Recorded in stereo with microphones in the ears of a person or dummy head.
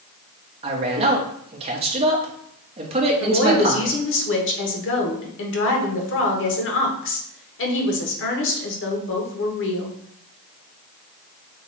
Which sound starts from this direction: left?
A woman speaking, at 3.2 s.